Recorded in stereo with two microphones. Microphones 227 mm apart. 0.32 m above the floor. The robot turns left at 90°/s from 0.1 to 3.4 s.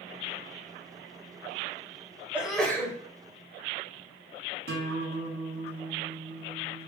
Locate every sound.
2.3 s a sneeze: 5° right (ahead or behind), 1.0 m; by 3.0 s 15° left (ahead or behind), 1.0 m
4.7 s a guitar: 70° right (ahead or behind), 1.2 m